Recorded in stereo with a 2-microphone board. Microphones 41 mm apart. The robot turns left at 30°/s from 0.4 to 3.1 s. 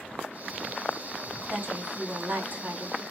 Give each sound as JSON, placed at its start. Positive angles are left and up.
{"t": 1.5, "sound": "a woman speaking", "azimuth_deg": -80, "distance_m": 2.5}